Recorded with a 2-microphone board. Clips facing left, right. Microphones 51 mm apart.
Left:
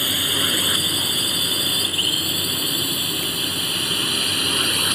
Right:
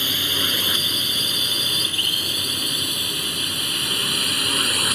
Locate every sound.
0.0 s a drone: 10° left (ahead or behind); by 4.9 s centre (ahead or behind)